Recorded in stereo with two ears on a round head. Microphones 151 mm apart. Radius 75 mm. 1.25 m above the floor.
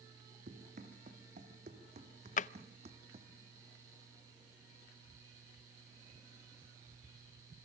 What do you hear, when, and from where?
0.5 s running footsteps: 50° right (ahead or behind), 3.5 m; by 3.3 s 40° right (ahead or behind), 2 m
2.4 s a drawer: 50° left (ahead or behind), 0.5 m